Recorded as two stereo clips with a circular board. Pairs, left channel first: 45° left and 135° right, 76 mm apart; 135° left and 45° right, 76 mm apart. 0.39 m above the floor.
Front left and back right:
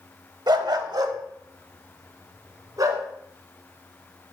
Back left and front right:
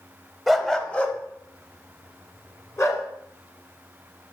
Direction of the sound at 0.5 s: 135° right.